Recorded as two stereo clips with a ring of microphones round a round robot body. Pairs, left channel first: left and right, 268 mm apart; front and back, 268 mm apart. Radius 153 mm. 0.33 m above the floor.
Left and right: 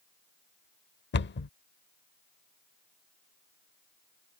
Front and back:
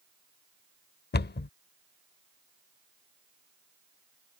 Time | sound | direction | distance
1.1 | a cupboard door | 50° left | ?